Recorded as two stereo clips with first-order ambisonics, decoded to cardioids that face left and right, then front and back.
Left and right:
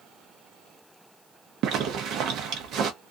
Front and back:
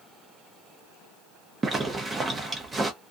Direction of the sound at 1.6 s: 115° right.